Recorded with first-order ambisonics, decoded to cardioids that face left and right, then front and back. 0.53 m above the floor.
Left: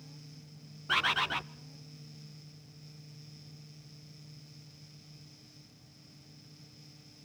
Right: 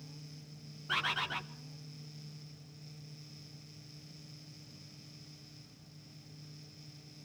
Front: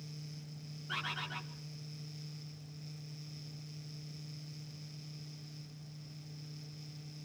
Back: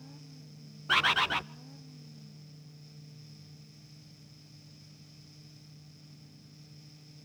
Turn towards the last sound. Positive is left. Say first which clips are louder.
# left 5 dB, back 13 dB
turn(degrees=160)